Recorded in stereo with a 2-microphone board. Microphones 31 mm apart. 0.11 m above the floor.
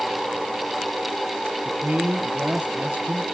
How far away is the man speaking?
About 2 m.